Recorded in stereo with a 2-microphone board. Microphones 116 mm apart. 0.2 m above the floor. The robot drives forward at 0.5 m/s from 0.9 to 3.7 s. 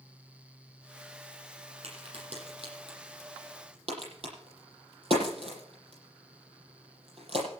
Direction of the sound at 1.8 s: 55° right (ahead or behind).